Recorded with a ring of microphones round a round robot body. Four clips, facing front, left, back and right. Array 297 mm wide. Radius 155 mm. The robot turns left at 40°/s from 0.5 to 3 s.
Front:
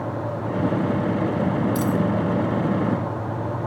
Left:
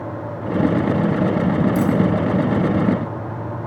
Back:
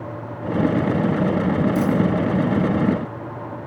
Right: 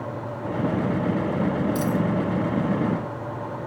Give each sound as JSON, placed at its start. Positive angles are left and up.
{"t": 1.8, "sound": "a dropped coin", "azimuth_deg": -30, "distance_m": 2.0}